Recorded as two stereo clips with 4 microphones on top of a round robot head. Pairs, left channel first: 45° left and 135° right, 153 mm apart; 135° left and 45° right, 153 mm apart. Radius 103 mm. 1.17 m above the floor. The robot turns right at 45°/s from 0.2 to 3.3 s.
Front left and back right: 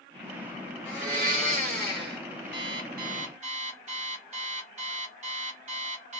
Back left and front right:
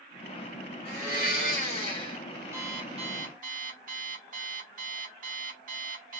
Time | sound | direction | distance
0.8 | a blender | 145° left | 3 m
2.5 | an alarm clock | 120° right | 1.2 m